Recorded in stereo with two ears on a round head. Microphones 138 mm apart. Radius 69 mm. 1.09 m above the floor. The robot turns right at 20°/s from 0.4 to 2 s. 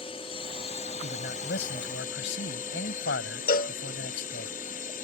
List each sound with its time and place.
0.0 s a drone: 40° left; by 5.0 s 75° left
1.0 s a man speaking: 65° left (ahead or behind); by 4.5 s 85° left
3.5 s a cowbell: 60° left (ahead or behind)